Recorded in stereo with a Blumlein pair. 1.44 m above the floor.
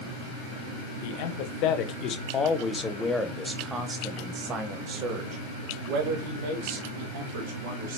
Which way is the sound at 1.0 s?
50° left.